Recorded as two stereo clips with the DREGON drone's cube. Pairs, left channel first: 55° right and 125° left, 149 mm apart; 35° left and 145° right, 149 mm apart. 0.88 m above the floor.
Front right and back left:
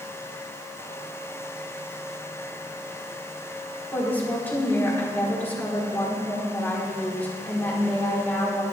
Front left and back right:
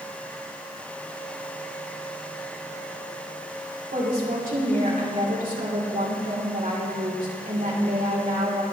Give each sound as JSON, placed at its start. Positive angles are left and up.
{"t": 3.9, "sound": "a woman speaking", "azimuth_deg": -130, "distance_m": 3.0}